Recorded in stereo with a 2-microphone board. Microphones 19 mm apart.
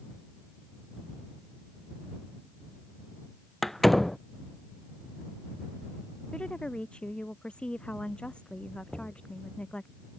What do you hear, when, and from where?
3.6 s a door slam: 15° left (ahead or behind)
6.3 s a woman speaking: 75° left (ahead or behind)
8.9 s knocking: 40° right (ahead or behind)